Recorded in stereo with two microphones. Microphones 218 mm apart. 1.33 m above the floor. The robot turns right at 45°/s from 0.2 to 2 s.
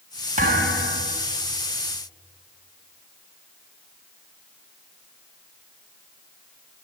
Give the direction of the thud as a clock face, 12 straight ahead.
5 o'clock.